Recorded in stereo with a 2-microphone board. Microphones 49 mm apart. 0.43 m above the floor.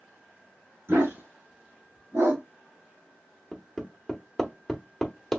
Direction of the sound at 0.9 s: 55° right (ahead or behind).